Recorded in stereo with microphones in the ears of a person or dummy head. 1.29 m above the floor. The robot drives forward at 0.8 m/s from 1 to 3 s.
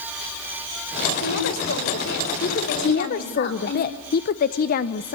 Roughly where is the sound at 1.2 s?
Left.